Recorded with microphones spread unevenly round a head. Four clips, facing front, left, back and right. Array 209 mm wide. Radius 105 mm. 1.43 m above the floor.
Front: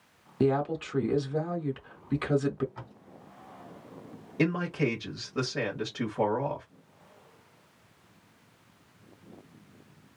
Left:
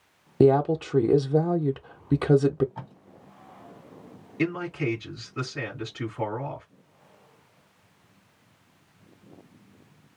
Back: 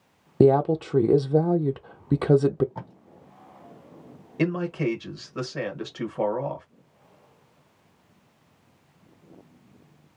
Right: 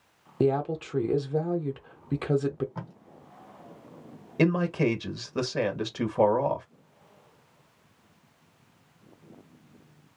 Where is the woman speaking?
150° left, 0.5 m.